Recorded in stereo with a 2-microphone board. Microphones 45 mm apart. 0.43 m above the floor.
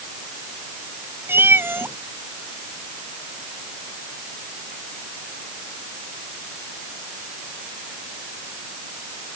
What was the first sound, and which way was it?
A cat meowing, 55° right (ahead or behind).